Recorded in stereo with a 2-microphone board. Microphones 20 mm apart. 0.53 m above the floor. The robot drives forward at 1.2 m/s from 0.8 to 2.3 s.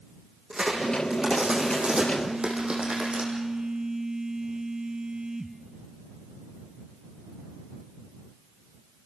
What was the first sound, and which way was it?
A crack, 70° right (ahead or behind).